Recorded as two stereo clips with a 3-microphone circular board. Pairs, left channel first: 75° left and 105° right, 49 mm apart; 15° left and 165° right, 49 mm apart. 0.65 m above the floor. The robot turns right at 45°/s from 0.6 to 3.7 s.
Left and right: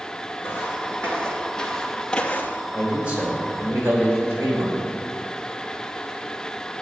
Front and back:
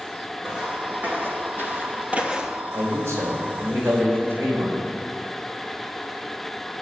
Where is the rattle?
I don't hear a rattle.